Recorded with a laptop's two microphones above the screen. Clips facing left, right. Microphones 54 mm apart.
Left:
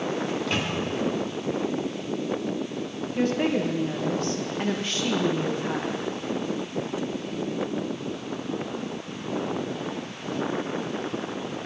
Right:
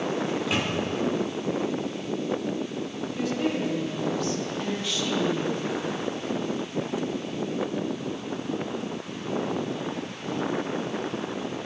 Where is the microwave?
5° right (ahead or behind), 2 m.